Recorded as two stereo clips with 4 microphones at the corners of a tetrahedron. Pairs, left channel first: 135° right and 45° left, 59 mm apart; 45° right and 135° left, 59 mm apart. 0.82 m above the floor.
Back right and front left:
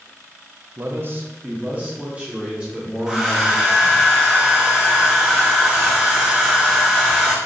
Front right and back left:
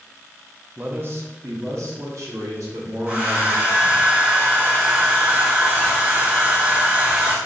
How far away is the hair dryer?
About 1.1 m.